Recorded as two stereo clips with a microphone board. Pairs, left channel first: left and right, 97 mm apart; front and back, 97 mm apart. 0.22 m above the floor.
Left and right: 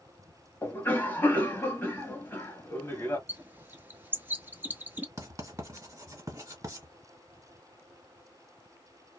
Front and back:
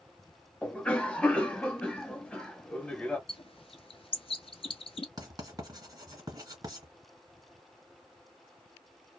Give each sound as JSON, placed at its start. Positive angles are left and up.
{"t": 0.6, "sound": "a cough", "azimuth_deg": 60, "distance_m": 1.0}
{"t": 3.3, "sound": "a bird", "azimuth_deg": -20, "distance_m": 0.7}
{"t": 5.2, "sound": "writing", "azimuth_deg": -140, "distance_m": 1.5}